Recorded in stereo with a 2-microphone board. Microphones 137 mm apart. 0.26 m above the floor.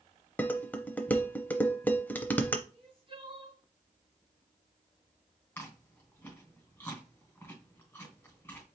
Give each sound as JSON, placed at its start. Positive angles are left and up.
{"t": 0.4, "sound": "dishes clattering", "side_deg": 10, "distance_m": 0.6}
{"t": 2.7, "sound": "crying", "side_deg": -40, "distance_m": 3.0}
{"t": 5.6, "sound": "chewing", "side_deg": 15, "distance_m": 2.5}